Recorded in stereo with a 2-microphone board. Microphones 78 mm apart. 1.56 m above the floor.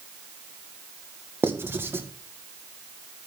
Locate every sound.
1.4 s writing: 30° right (ahead or behind), 1.5 m